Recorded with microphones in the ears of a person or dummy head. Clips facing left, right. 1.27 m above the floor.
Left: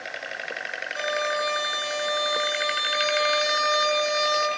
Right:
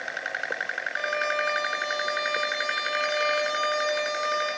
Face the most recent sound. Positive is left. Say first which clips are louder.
# left 2 dB
turn(degrees=45)  # may be behind; listen again after turning